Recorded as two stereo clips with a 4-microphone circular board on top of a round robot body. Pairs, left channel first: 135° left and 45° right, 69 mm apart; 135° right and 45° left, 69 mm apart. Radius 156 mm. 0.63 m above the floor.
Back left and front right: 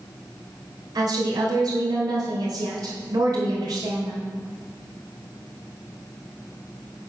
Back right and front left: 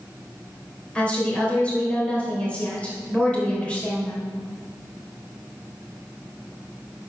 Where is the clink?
No clink in this recording.